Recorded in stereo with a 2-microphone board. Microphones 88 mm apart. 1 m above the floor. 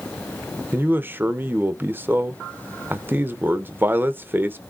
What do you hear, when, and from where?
0.7 s a man speaking: 20° right (ahead or behind), 0.6 m